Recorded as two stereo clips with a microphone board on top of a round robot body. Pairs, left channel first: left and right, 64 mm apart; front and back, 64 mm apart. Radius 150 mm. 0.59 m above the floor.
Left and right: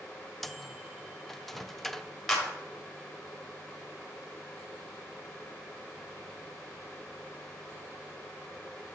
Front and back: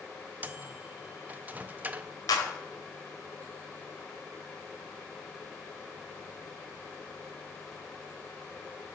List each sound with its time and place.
0.4 s a microwave: 175° left, 0.6 m
2.3 s a clap: 5° left, 1.6 m